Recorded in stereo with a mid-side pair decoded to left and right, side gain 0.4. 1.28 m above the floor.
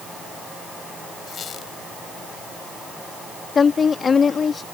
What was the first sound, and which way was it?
A squeak, 65° left.